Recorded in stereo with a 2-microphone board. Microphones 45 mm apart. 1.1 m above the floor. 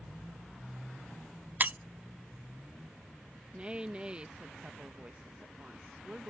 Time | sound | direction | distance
1.6 | breaking glass | 40° right (ahead or behind) | ?
3.5 | a woman speaking | 25° right (ahead or behind) | ?